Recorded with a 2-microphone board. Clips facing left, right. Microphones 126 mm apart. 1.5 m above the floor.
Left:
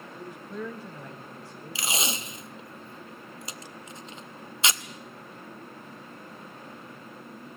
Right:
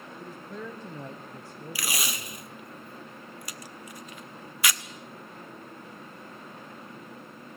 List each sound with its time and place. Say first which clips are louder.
0.2 s a man speaking: left 3 dB; 15° left (ahead or behind), 1.3 m; by 2.5 s 75° right (ahead or behind), 2.5 m
1.8 s tape being pulled: left 4 dB; 25° left (ahead or behind), 0.7 m